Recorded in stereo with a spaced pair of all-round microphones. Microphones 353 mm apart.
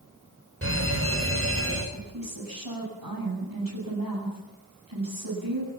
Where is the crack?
I don't hear a crack.